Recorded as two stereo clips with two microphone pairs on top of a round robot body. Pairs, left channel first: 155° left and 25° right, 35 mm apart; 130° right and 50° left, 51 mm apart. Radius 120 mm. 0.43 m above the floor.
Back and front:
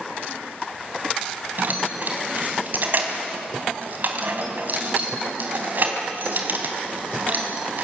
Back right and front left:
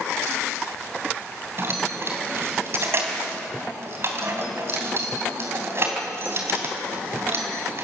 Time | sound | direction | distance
1.6 | keys jangling | 5° left | 3 m